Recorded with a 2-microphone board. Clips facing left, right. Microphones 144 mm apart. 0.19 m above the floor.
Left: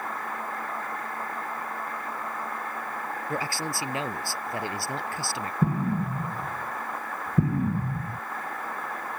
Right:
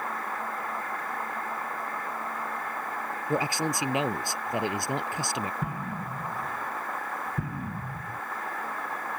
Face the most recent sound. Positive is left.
turn(degrees=35)  # may be behind; listen again after turning